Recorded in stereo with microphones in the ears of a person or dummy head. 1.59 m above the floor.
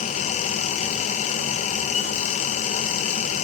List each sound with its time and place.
0.0 s a fan: 40° left (ahead or behind), 1.6 m